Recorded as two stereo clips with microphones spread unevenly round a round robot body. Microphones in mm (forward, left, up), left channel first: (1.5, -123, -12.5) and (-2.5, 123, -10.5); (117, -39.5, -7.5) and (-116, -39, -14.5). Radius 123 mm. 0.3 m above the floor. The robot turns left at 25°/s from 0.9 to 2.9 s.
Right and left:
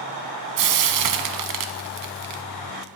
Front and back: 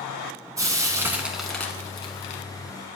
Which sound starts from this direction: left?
Frying, at 0.6 s.